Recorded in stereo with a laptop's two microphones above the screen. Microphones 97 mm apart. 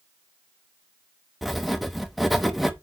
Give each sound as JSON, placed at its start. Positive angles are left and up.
{"t": 1.4, "sound": "writing", "side_deg": 0, "distance_m": 1.0}